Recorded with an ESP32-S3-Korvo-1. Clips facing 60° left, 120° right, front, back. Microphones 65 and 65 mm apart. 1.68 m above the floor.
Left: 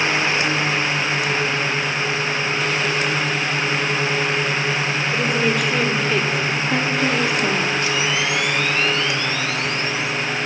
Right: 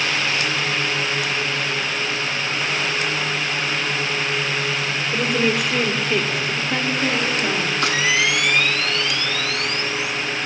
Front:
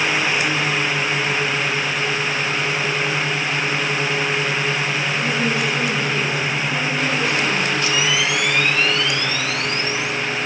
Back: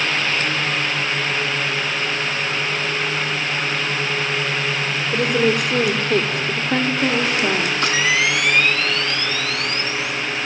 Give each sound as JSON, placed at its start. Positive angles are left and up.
{"t": 5.1, "sound": "a woman speaking", "azimuth_deg": 155, "distance_m": 5.0}
{"t": 7.8, "sound": "a camera shutter", "azimuth_deg": -145, "distance_m": 3.5}